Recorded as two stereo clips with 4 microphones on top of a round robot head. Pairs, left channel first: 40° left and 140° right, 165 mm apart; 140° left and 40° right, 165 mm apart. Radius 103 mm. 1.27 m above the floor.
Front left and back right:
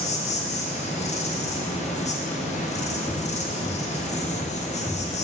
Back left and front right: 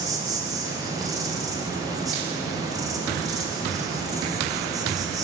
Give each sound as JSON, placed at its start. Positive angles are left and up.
{"t": 0.0, "sound": "an insect", "azimuth_deg": 20, "distance_m": 0.9}